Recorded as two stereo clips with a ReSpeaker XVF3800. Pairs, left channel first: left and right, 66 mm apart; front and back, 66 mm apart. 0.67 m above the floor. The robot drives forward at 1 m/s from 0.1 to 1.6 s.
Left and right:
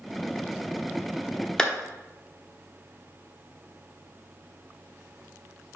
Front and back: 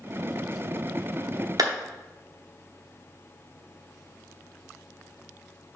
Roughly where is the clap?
Behind.